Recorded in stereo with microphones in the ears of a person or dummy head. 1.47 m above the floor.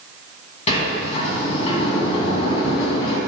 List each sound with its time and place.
0.7 s a sliding door: 35° left (ahead or behind), 1.8 m